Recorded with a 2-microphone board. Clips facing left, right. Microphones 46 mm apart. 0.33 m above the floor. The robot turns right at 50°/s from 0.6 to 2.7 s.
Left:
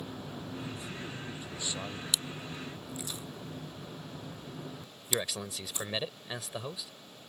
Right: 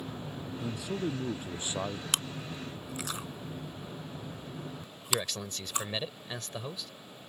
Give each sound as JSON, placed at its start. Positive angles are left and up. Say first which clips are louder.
{"t": 0.6, "sound": "a man speaking", "louder": "right 6 dB", "azimuth_deg": -90}
{"t": 2.1, "sound": "chewing", "louder": "right 1 dB", "side_deg": -55}
{"t": 5.1, "sound": "a man speaking", "louder": "right 1 dB", "side_deg": 5}